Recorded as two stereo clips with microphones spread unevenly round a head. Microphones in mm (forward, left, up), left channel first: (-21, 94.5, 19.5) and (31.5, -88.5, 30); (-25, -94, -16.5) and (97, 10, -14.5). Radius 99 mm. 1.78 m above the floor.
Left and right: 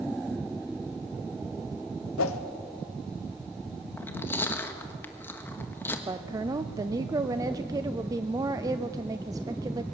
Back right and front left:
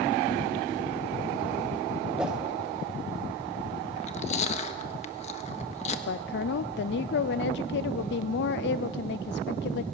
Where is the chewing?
175° right, 1.3 m.